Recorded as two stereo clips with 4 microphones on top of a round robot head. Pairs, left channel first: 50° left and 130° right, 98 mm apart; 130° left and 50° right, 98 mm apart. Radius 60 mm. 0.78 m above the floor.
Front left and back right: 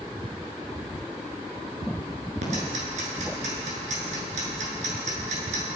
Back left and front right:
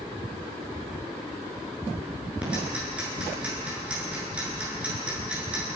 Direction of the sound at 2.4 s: 130° right.